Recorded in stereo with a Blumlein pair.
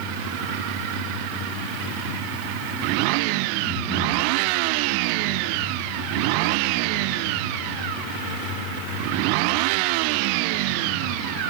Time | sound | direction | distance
3.7 | breathing | 10° right | 6.5 m